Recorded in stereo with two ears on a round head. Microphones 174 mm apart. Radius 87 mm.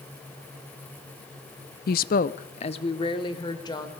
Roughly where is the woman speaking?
Left.